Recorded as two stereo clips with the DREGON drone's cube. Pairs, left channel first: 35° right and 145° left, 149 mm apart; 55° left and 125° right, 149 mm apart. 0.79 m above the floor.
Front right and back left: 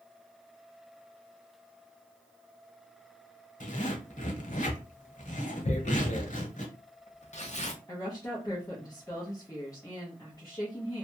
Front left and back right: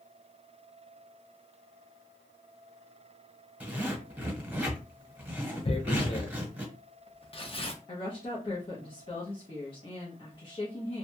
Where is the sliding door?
No sliding door in this recording.